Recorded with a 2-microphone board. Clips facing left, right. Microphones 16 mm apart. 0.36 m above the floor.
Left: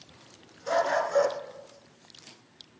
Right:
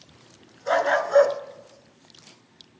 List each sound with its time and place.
0.7 s a dog barking: 40° right (ahead or behind), 1.3 m